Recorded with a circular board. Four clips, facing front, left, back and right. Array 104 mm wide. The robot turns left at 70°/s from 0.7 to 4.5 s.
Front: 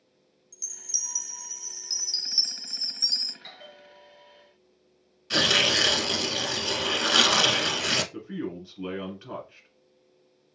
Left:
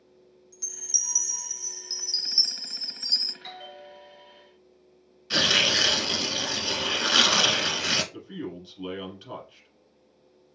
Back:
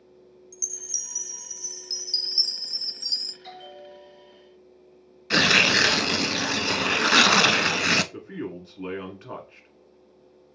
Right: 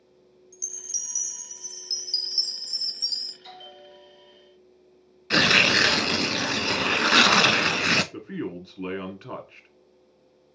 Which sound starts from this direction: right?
A man speaking, at 8.1 s.